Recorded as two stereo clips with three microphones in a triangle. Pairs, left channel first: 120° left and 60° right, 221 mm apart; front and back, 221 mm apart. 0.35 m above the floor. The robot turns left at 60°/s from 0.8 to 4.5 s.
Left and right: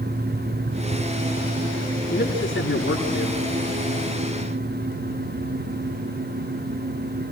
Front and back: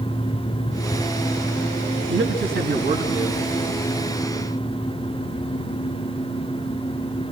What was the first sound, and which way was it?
A man speaking, 170° left.